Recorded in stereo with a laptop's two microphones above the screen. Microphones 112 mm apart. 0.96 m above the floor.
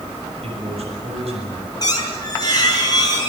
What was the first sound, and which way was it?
A man speaking, 65° right (ahead or behind).